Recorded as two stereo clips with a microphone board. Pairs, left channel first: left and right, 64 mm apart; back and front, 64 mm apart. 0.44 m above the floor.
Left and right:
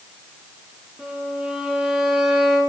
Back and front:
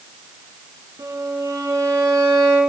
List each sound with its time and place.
1.0 s a violin: 15° right, 4.5 m